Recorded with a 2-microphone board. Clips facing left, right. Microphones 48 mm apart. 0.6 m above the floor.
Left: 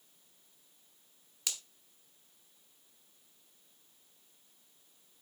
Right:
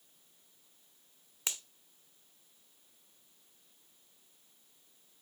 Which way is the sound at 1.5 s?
25° right (ahead or behind).